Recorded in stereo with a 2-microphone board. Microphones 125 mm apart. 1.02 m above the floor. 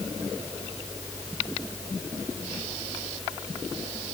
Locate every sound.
Only background noise.